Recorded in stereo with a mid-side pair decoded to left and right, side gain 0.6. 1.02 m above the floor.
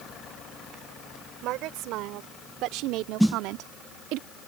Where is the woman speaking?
70° right; by 4.2 s 75° right.